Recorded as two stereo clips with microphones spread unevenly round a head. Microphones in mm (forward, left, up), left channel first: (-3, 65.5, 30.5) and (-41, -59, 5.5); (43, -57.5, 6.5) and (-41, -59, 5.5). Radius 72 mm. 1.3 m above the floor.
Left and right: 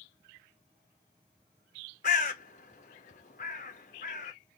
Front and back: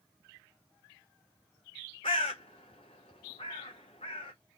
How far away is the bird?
About 0.6 m.